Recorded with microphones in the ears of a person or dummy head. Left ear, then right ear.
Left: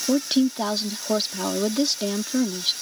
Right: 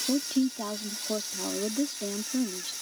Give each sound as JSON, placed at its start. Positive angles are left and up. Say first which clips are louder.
{"t": 0.1, "sound": "a woman speaking", "louder": "left 8 dB", "side_deg": 50}